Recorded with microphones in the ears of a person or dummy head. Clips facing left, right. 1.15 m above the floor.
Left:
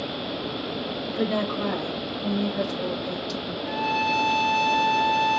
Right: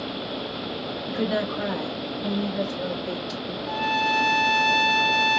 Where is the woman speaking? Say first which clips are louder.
Even; 15° right (ahead or behind), 1.4 m; by 3.6 s 5° left (ahead or behind), 2.5 m.